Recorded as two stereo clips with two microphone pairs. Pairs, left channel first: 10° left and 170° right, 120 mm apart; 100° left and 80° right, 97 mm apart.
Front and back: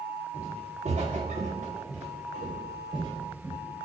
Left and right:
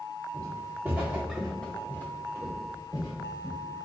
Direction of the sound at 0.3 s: 140° right.